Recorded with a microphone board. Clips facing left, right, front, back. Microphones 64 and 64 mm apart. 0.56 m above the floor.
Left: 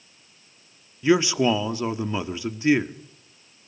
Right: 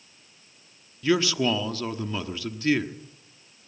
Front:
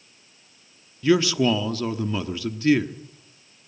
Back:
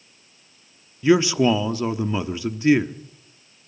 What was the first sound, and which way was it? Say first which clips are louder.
A man speaking: left 4 dB, back 2 dB; 135° left.